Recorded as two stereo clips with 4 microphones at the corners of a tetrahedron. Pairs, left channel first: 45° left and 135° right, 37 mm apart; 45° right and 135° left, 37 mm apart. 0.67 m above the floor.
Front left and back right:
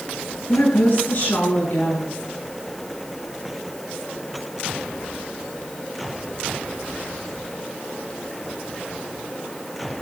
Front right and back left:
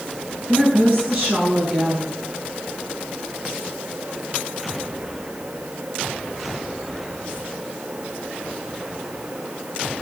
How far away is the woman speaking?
About 8 m.